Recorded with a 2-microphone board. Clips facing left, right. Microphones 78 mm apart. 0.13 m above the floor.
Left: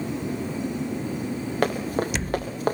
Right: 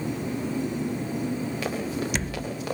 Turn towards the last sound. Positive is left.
turn(degrees=45)  # may be behind; listen again after turning